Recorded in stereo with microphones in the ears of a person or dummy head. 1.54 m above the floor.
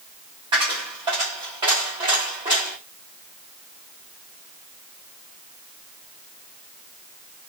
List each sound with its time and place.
0.5 s a dropped coin: 15° right (ahead or behind), 1.1 m